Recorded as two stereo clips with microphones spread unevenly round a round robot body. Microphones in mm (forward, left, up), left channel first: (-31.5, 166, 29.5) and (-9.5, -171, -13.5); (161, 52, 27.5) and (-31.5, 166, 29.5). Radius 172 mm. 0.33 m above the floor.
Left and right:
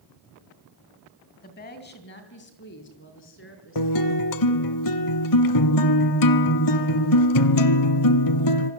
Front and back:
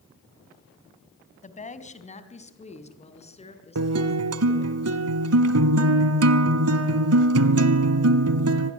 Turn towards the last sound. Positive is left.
turn(degrees=130)